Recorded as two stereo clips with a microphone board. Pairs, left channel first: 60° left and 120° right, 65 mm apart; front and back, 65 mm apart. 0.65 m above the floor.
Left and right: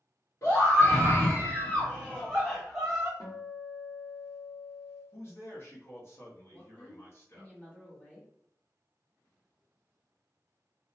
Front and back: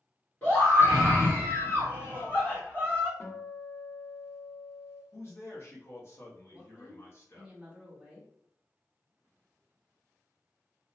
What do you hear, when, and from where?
0.4 s a scream: 45° left, 1.5 m; by 3.1 s 55° right, 1.1 m
3.2 s a guitar: 45° left, 0.8 m
5.1 s a man speaking: 30° left, 0.8 m
6.5 s a woman speaking: 115° left, 1.1 m